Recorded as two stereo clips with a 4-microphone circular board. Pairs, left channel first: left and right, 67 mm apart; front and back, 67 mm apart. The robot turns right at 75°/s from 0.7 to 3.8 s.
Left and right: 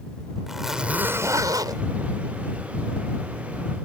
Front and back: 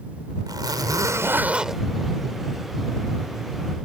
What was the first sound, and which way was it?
A zipper, 170° right.